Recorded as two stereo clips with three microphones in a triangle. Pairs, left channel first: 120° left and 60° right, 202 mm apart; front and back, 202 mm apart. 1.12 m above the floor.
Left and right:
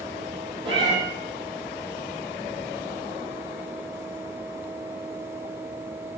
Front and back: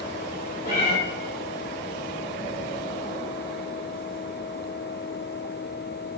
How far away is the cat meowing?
About 1.7 m.